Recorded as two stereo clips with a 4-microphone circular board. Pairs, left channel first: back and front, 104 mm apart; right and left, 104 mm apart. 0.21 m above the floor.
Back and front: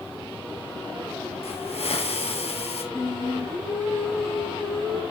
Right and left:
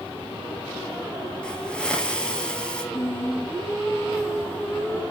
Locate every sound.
1.4 s a hiss: 170° right, 2 m
2.9 s singing: 100° right, 1.5 m